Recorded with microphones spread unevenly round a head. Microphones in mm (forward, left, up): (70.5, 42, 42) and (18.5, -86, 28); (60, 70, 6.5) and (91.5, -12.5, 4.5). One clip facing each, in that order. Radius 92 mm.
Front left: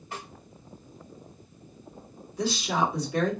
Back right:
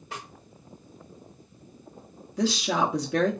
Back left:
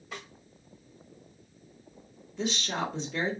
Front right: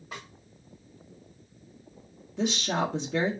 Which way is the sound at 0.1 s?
145° right.